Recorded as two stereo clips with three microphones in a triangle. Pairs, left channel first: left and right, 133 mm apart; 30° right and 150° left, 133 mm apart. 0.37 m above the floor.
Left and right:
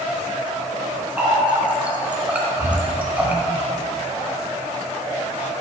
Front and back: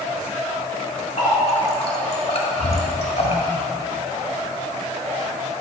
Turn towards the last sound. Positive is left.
turn(degrees=-15)